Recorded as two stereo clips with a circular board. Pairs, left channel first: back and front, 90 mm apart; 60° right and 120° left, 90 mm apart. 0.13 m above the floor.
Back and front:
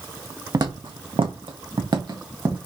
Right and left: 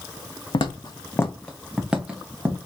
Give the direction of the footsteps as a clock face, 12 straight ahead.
1 o'clock.